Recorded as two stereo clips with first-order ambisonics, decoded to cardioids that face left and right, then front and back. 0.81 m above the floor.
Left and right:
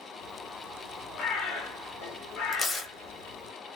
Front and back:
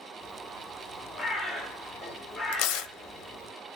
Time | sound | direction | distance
0.2 | a bird | 80° left | 2 m
2.5 | tearing paper | 15° left | 0.7 m